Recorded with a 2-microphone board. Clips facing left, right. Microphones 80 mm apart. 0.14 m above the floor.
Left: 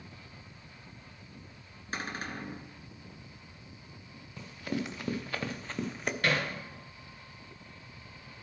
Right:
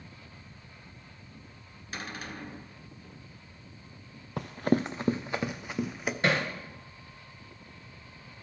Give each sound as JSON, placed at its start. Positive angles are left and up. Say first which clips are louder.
{"t": 1.9, "sound": "a cupboard door", "louder": "left 2 dB", "side_deg": 35, "distance_m": 1.6}
{"t": 4.4, "sound": "running footsteps", "louder": "right 9 dB", "side_deg": -65, "distance_m": 0.6}
{"t": 6.2, "sound": "hammering", "louder": "right 3 dB", "side_deg": -25, "distance_m": 1.7}